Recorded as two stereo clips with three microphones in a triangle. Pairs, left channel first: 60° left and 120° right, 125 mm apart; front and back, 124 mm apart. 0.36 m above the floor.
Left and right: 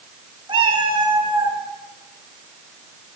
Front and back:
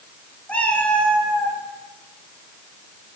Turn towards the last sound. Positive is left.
turn(degrees=-75)